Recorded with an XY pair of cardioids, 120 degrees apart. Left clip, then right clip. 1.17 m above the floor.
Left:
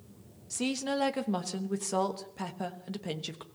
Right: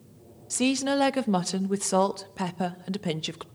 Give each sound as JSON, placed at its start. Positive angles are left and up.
{"t": 0.5, "sound": "a woman speaking", "azimuth_deg": -40, "distance_m": 1.1}